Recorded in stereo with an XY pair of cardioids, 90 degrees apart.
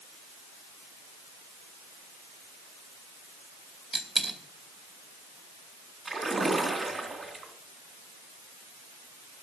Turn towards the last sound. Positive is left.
turn(degrees=-30)